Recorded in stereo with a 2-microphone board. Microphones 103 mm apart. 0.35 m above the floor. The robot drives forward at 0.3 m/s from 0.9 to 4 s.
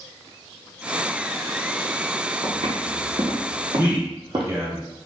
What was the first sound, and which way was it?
Footsteps, 75° right (ahead or behind).